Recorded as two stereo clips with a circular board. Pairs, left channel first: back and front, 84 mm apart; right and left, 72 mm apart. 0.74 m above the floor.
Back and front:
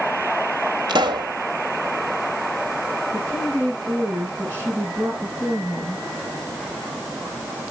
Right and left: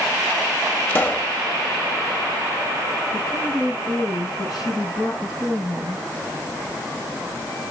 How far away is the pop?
About 0.8 m.